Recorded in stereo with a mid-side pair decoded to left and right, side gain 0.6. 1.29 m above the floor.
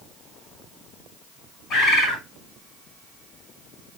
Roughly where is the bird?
Ahead left.